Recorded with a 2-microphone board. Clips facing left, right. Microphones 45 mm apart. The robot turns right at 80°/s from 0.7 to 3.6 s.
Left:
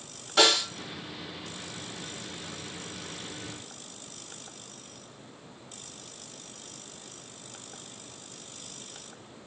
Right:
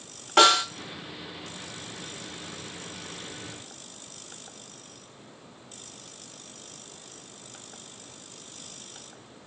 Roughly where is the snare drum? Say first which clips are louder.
Right 5 dB; right.